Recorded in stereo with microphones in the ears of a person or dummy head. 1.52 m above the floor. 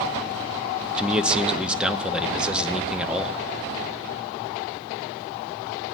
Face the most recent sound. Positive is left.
turn(degrees=-5)  # may be behind; listen again after turning